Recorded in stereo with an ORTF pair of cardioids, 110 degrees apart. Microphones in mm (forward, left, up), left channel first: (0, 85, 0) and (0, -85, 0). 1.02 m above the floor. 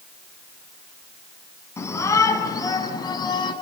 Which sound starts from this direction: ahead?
A shout, at 1.8 s.